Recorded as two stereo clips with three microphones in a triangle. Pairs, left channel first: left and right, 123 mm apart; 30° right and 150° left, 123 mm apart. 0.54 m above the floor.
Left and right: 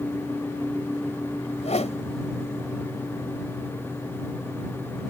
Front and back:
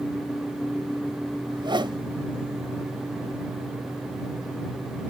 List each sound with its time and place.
1.5 s a whoosh: 105° left